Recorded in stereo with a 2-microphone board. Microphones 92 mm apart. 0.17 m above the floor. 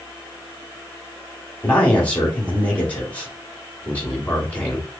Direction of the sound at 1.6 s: 15° left (ahead or behind).